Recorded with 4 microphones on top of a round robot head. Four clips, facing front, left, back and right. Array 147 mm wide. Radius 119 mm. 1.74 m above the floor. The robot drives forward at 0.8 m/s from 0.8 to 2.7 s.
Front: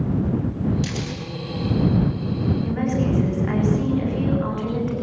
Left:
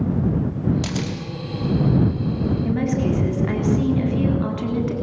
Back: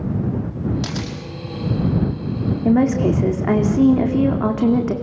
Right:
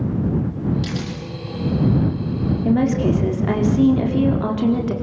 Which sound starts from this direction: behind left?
A camera shutter, at 0.8 s.